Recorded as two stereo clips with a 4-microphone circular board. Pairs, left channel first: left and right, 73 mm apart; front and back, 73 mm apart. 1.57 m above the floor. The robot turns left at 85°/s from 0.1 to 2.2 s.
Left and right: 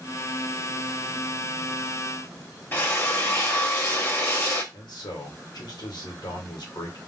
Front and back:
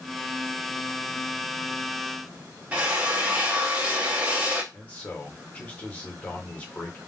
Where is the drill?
125° left, 1.2 m.